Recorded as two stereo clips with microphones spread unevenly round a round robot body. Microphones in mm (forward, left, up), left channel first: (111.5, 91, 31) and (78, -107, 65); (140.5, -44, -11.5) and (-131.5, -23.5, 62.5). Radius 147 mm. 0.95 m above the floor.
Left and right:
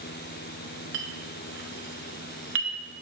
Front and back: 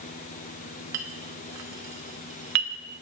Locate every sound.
0.9 s a clink: 150° right, 0.8 m